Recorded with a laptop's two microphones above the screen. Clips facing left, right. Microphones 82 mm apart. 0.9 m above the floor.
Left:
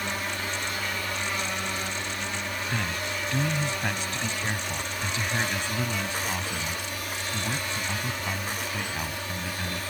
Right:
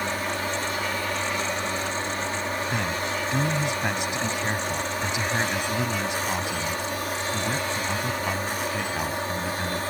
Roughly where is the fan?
Right.